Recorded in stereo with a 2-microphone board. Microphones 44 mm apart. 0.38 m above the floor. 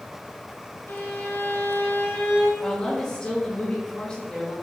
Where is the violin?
65° left (ahead or behind), 1.2 m.